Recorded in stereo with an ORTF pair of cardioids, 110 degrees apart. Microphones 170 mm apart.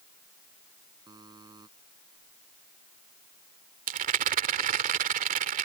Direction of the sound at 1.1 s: 25° right.